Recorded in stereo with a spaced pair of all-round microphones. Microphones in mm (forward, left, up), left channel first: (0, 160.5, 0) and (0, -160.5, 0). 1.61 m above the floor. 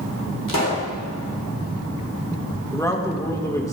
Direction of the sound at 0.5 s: 80° left.